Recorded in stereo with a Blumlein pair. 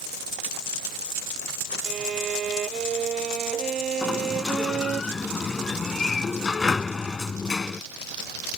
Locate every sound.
1.9 s a violin: 25° right
4.0 s a sliding door: 15° left